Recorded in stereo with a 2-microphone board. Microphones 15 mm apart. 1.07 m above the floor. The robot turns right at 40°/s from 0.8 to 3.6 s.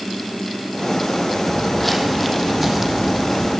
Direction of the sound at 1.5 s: 15° left (ahead or behind).